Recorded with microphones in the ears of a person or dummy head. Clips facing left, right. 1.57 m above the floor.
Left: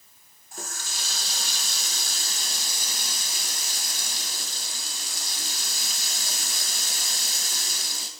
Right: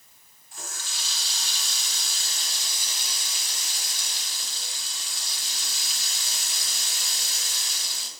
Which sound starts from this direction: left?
A running tap, at 0.5 s.